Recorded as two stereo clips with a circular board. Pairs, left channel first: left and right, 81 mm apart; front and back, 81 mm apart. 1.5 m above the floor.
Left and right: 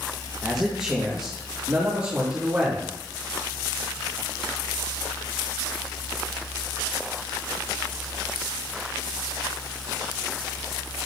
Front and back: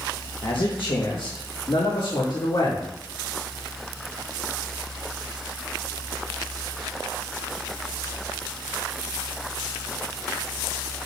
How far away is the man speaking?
About 1.9 m.